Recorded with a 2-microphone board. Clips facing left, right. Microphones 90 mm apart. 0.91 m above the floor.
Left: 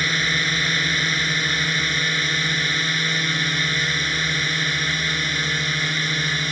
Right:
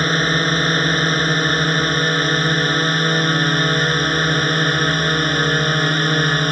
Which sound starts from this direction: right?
A drone, at 0.0 s.